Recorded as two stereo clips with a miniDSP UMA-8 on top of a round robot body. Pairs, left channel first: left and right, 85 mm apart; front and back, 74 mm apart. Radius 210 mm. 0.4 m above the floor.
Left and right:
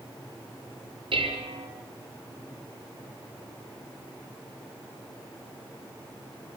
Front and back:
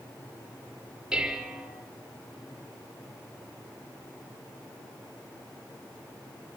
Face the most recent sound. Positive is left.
turn(degrees=-100)